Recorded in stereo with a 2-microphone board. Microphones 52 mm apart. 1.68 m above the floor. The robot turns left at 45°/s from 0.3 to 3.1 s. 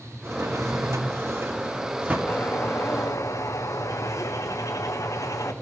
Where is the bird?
140° left, 1.3 m; by 5.5 s 100° left, 1.3 m.